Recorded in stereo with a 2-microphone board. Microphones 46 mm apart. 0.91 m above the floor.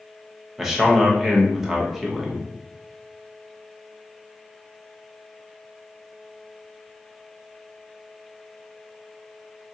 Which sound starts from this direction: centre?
A man speaking, at 0.6 s.